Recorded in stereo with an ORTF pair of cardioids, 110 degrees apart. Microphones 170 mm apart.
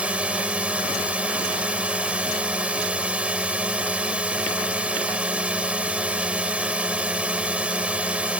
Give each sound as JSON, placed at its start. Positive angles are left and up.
{"t": 0.0, "sound": "a drone", "azimuth_deg": -5}